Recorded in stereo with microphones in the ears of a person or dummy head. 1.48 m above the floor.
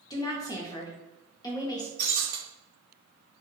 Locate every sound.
0.1 s a woman speaking: 20° left (ahead or behind), 0.5 m
2.0 s breaking glass: 55° right (ahead or behind), 1.8 m